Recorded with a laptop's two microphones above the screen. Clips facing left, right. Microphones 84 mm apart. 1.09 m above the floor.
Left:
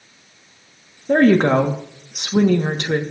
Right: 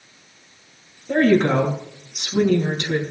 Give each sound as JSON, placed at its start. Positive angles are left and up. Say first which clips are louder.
{"t": 1.1, "sound": "a woman speaking", "louder": "left 3 dB", "side_deg": 55, "distance_m": 1.6}